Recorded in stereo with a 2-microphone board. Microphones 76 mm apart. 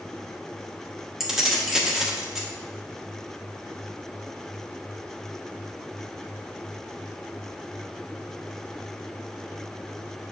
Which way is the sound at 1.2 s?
5° right (ahead or behind).